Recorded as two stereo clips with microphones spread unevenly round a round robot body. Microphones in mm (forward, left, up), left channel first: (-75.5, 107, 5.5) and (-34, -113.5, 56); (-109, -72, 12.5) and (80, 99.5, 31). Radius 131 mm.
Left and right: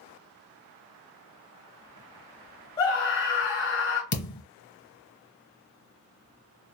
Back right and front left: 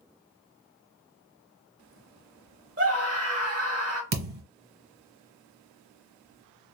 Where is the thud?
75° left, 1.1 m.